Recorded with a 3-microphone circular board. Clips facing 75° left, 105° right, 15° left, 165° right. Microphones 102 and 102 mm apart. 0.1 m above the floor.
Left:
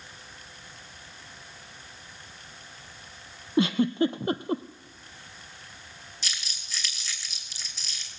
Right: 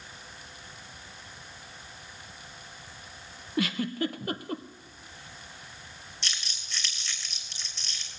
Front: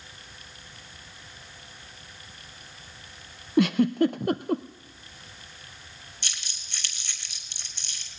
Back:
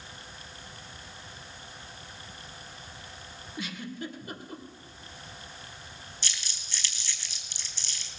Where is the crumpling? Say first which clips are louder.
Even, front 2 dB; 15° right, 2.5 m.